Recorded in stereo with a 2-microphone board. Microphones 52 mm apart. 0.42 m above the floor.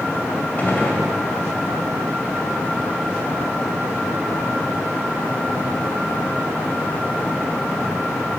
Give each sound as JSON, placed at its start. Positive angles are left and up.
{"t": 0.6, "sound": "a gunshot", "side_deg": 35, "distance_m": 2.5}